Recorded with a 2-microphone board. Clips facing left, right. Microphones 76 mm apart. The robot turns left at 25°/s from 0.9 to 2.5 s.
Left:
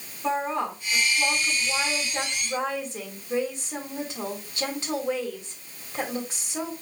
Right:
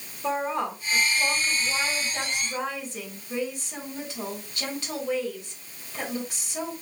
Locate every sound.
0.2 s a woman speaking: 170° right, 3.5 m; by 6.7 s 150° left, 3.5 m